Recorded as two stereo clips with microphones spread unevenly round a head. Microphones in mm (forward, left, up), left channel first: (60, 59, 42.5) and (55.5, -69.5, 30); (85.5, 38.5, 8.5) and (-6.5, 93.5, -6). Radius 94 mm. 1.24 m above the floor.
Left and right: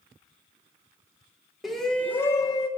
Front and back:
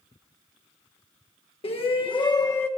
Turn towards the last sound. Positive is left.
turn(degrees=35)